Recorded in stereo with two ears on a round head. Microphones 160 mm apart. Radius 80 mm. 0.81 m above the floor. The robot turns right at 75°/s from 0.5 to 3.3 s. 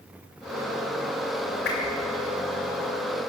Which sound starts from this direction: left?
A whoosh, at 1.6 s.